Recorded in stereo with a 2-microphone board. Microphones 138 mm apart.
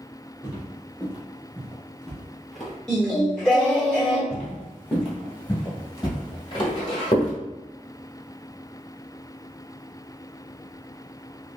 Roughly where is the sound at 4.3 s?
Centre.